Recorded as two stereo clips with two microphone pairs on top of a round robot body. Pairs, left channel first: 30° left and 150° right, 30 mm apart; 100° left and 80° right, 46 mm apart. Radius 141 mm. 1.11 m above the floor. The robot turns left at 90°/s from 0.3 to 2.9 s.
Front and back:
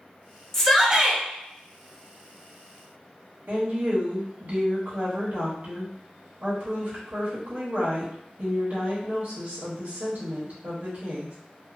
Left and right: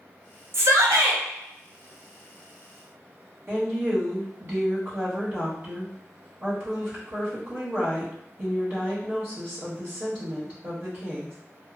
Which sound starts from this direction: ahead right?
A shout, at 0.5 s.